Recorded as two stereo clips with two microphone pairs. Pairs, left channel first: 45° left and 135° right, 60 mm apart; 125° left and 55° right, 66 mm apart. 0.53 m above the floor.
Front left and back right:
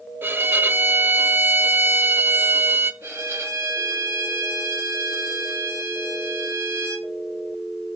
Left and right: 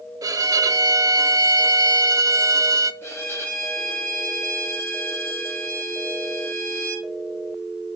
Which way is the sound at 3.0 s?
170° left.